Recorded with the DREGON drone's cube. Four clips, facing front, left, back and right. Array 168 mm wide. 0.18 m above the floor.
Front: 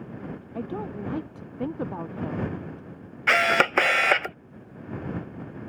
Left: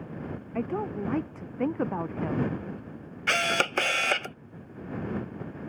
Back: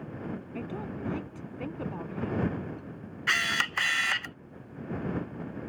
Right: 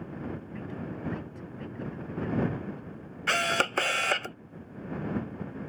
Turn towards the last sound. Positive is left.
turn(degrees=0)